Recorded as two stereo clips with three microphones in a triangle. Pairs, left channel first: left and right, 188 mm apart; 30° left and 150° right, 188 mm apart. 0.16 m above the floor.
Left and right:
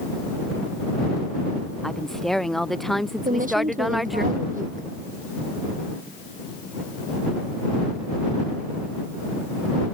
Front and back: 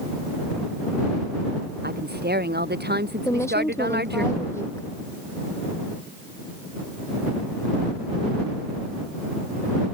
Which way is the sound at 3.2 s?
45° right.